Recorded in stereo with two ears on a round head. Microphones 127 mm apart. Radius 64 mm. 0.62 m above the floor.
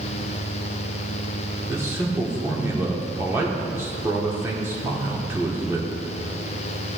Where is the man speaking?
20° right (ahead or behind), 1.2 m.